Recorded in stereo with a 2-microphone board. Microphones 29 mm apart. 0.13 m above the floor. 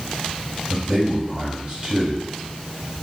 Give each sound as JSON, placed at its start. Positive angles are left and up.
{"t": 0.7, "sound": "a man speaking", "side_deg": -25, "distance_m": 1.7}